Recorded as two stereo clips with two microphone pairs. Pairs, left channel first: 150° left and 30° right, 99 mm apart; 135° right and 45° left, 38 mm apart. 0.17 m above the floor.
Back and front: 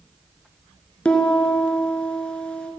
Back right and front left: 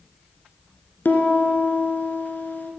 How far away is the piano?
About 1.8 m.